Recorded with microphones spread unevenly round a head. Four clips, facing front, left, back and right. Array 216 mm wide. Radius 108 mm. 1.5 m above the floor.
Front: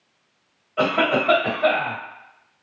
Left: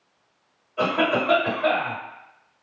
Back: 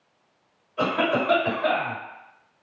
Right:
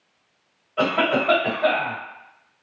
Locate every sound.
0.8 s a cough: 30° right, 1.6 m